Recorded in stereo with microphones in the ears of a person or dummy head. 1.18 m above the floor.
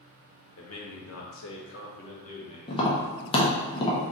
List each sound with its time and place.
0.6 s a man speaking: 75° left (ahead or behind), 1.2 m; by 2.6 s 30° left (ahead or behind), 1.0 m
2.7 s tapping: 25° left (ahead or behind), 0.7 m